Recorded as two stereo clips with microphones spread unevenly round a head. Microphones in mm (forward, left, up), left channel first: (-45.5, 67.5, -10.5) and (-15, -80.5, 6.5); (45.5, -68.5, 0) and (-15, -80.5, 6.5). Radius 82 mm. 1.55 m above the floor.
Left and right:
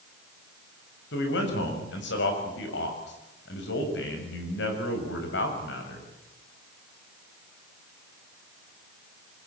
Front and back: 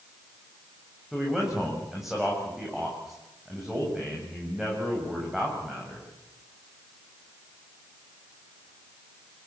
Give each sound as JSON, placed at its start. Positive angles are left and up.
{"t": 1.1, "sound": "a man speaking", "azimuth_deg": 105, "distance_m": 7.5}